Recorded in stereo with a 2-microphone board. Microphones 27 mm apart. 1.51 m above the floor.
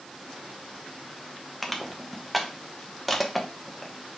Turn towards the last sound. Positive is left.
turn(degrees=5)  # may be behind; listen again after turning